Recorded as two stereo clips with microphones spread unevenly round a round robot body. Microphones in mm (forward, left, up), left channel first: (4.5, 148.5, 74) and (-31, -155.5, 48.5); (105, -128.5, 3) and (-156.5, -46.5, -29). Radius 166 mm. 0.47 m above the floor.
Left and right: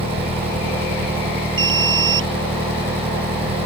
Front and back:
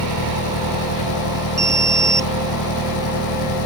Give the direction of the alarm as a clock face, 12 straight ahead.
4 o'clock.